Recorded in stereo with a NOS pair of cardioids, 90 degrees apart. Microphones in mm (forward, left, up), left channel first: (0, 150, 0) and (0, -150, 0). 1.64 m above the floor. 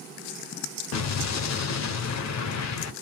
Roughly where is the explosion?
Ahead left.